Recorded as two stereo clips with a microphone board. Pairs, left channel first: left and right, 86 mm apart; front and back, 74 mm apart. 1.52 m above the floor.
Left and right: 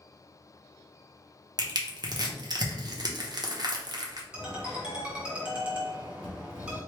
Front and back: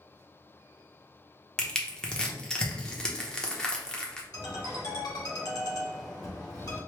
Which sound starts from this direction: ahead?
A ringtone, at 4.3 s.